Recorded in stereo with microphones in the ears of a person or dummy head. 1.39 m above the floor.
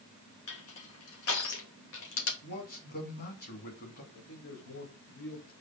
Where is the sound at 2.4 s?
50° left (ahead or behind), 2.5 m.